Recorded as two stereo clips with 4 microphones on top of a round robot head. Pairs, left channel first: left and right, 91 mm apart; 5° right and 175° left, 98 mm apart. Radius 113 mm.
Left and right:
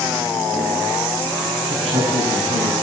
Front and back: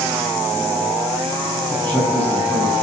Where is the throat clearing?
I don't hear throat clearing.